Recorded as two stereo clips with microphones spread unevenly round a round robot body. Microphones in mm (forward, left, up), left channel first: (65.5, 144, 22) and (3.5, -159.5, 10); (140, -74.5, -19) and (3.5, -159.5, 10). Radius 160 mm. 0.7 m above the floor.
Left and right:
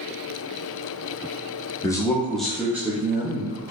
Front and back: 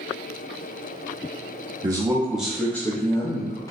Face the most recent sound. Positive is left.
turn(degrees=-25)